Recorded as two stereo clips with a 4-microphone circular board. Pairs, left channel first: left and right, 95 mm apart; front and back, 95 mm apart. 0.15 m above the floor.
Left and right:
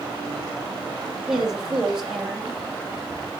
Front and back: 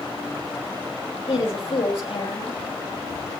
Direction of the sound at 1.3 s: 5° right.